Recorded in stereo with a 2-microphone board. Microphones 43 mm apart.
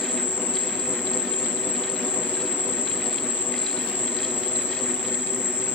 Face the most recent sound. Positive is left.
turn(degrees=-25)  # may be behind; listen again after turning